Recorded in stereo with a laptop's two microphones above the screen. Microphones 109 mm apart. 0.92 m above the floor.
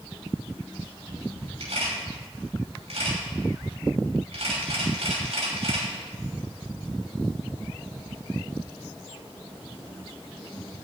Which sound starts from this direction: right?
A camera shutter, at 1.6 s.